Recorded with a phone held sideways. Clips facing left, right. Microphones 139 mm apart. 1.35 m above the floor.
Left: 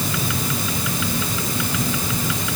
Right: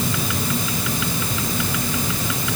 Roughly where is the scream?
No scream in this recording.